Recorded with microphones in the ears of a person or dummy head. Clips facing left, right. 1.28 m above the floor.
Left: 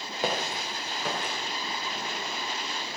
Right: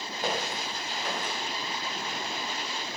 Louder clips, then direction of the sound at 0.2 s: Left 2 dB; 65° left (ahead or behind).